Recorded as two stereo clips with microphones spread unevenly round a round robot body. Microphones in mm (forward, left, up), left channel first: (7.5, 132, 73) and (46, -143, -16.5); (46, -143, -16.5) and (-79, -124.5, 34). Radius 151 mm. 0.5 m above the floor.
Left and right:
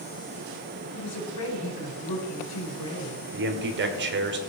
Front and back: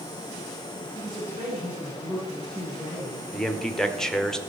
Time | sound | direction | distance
0.9 | a woman speaking | 95° left | 4.5 m
3.3 | a man speaking | 75° right | 1.9 m